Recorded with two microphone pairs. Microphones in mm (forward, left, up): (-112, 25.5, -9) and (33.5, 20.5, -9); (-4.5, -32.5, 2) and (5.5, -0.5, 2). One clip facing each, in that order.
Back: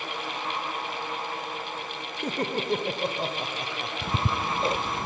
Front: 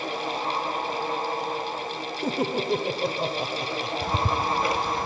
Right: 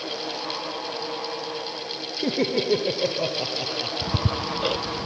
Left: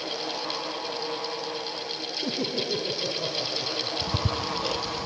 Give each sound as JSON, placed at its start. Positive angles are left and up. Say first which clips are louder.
{"t": 2.2, "sound": "laughter", "louder": "front 3 dB, right 7 dB", "azimuth_deg": -85, "distance_m": 1.7}
{"t": 4.0, "sound": "ticking", "louder": "front 2 dB, right 2 dB", "azimuth_deg": -135, "distance_m": 0.7}